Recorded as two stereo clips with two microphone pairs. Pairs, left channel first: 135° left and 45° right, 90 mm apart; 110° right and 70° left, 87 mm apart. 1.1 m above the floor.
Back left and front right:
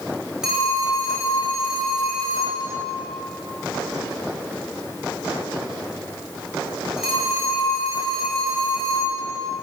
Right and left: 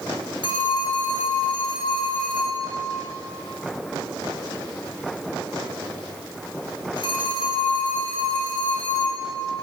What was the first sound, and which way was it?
A phone ringing, 130° right.